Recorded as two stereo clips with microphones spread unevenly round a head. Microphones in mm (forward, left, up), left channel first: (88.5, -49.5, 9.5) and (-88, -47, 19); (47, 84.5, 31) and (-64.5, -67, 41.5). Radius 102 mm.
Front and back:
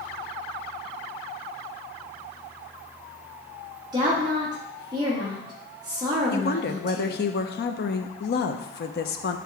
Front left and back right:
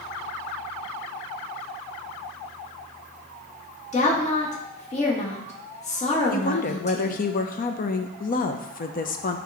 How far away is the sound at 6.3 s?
About 0.7 m.